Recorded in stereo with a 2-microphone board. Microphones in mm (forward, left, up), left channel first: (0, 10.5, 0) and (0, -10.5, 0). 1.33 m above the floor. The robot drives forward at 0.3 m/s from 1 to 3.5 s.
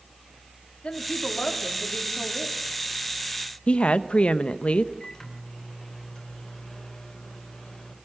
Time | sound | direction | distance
0.8 | a woman speaking | 70° left (ahead or behind) | 4 m
3.7 | a woman speaking | 80° left | 1.0 m
5.0 | a microwave | 30° left (ahead or behind) | 5 m